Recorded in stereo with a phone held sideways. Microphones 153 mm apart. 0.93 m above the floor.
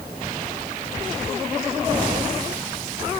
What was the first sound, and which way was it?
Only background noise.